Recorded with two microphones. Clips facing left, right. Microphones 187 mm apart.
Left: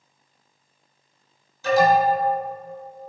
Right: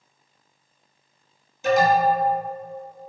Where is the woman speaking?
No woman speaking in this recording.